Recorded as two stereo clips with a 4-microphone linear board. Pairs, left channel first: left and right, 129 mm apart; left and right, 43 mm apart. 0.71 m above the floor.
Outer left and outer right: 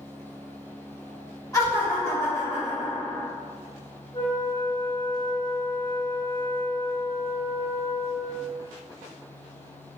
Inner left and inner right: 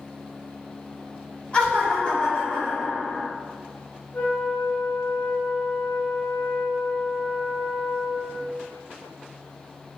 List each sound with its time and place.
1.5 s laughter: 25° left (ahead or behind), 1.5 m
4.1 s a flute: 30° left (ahead or behind), 1.1 m